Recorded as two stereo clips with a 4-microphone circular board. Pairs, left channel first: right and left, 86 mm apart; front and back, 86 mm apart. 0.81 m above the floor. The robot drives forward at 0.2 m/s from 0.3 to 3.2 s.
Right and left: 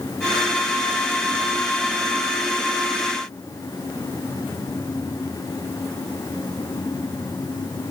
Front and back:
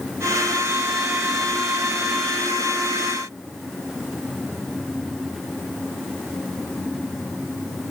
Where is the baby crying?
I don't hear a baby crying.